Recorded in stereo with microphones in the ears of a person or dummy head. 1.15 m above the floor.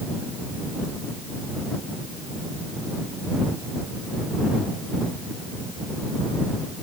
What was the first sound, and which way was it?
Only background noise.